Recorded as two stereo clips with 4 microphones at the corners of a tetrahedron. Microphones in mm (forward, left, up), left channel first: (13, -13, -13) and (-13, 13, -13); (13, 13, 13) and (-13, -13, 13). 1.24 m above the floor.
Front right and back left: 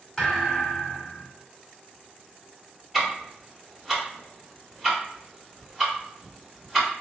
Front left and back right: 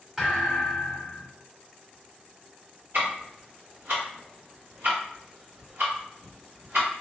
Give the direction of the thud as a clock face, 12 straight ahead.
3 o'clock.